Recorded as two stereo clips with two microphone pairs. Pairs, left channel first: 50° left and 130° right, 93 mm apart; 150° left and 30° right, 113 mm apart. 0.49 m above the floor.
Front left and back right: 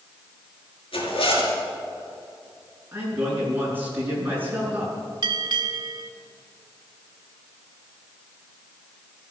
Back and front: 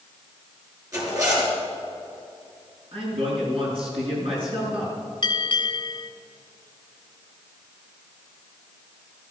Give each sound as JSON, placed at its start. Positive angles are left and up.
{"t": 0.9, "sound": "a zipper", "azimuth_deg": 30, "distance_m": 5.5}
{"t": 2.9, "sound": "a man speaking", "azimuth_deg": -60, "distance_m": 7.0}
{"t": 5.2, "sound": "a bell", "azimuth_deg": -165, "distance_m": 1.0}